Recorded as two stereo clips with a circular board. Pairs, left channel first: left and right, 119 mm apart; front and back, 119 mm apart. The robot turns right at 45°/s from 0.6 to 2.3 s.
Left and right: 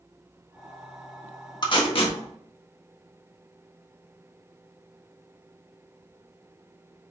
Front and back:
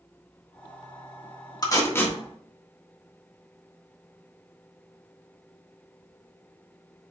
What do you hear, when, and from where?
1.6 s tape being pulled: 50° left, 1.4 m; by 2.2 s 75° left, 1.4 m